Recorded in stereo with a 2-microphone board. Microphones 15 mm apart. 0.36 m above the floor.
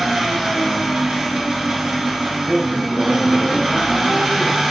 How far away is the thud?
I don't hear a thud.